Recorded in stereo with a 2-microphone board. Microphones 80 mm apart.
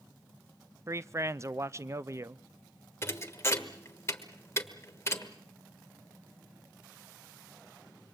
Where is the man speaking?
35° right (ahead or behind), 0.6 m.